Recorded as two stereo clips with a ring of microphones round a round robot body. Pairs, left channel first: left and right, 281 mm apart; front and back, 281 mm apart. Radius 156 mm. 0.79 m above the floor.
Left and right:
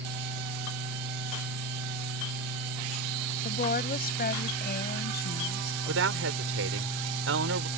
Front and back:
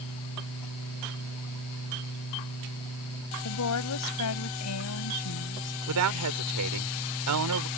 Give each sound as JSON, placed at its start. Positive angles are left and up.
{"t": 3.5, "sound": "a woman speaking", "azimuth_deg": 30}
{"t": 5.9, "sound": "a woman speaking", "azimuth_deg": -140}